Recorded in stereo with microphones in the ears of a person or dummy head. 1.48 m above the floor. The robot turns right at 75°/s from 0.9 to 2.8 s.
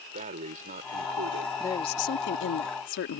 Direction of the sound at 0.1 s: 135° right.